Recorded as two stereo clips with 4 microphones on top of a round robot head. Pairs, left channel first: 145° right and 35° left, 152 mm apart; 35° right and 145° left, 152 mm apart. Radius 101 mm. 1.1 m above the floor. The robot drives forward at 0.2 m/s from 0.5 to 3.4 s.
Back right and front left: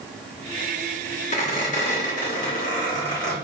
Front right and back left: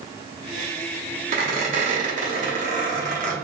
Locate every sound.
1.3 s a squeak: straight behind, 0.8 m